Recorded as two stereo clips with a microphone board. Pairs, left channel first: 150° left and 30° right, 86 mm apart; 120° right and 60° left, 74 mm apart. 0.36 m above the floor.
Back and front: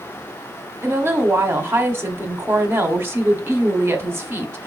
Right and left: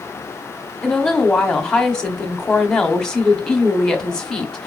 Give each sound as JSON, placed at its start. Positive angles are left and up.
{"t": 0.8, "sound": "a woman speaking", "azimuth_deg": -45, "distance_m": 0.9}